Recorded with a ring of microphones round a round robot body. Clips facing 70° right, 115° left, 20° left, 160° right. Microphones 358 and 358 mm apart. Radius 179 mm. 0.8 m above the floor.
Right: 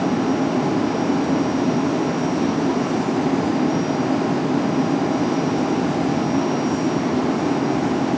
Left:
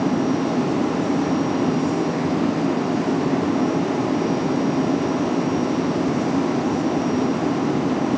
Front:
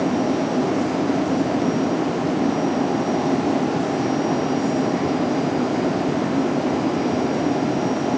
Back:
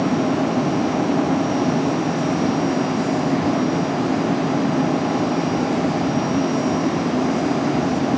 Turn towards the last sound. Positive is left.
No sound to turn to.